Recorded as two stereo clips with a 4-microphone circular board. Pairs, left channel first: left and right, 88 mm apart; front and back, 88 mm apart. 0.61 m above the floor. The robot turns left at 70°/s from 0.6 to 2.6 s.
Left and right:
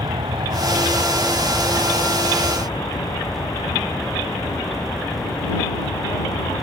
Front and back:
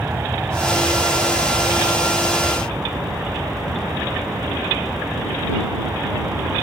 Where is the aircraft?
110° right; by 6.6 s 115° left.